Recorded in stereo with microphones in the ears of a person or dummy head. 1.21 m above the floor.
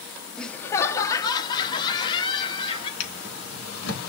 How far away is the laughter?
About 0.5 m.